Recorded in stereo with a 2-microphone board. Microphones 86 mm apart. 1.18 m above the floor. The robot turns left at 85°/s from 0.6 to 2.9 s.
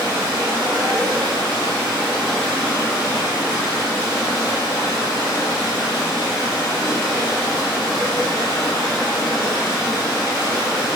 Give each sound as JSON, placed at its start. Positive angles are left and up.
{"t": 0.0, "sound": "running water", "azimuth_deg": -35, "distance_m": 1.6}